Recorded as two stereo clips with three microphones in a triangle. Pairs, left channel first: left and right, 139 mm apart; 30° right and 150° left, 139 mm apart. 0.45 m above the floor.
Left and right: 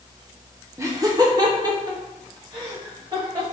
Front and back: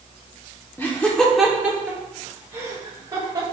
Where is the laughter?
70° right, 0.7 m; by 3.4 s 145° right, 1.8 m.